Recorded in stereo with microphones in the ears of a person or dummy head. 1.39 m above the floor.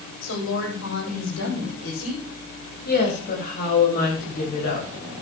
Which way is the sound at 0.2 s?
75° left (ahead or behind).